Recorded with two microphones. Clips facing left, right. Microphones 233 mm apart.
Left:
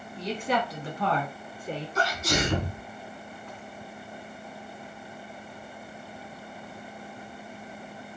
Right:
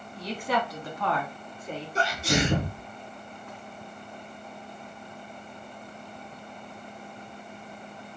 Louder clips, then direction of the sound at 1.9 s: Right 3 dB; 35° right (ahead or behind).